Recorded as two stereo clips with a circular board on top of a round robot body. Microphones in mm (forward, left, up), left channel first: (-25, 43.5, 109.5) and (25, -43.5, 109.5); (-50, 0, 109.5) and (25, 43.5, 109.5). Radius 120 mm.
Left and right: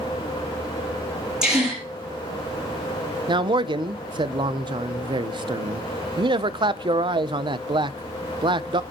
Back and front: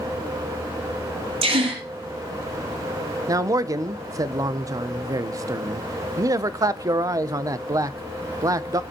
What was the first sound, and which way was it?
A gasp, 25° left.